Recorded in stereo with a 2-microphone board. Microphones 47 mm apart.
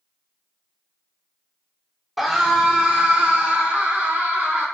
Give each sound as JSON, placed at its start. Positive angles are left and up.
{"t": 2.2, "sound": "a scream", "side_deg": 0, "distance_m": 1.2}